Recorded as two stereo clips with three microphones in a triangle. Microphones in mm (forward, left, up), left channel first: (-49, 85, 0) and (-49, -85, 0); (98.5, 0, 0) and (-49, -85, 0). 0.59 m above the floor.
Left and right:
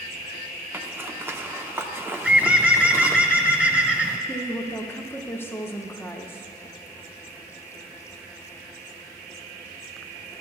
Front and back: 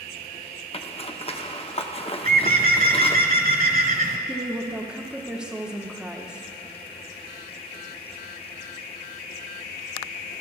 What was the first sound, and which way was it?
A zipper, 15° right.